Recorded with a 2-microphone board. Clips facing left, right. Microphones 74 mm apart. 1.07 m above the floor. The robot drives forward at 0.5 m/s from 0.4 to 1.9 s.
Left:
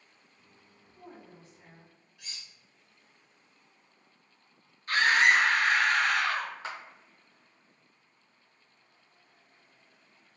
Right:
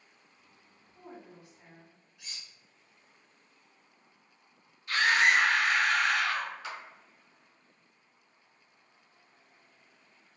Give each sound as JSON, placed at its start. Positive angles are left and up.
{"t": 0.9, "sound": "a woman speaking", "side_deg": -15, "distance_m": 0.6}
{"t": 2.2, "sound": "cutlery clinking", "side_deg": -5, "distance_m": 1.6}
{"t": 4.9, "sound": "a scream", "side_deg": 40, "distance_m": 0.9}
{"t": 6.6, "sound": "a clap", "side_deg": 35, "distance_m": 0.6}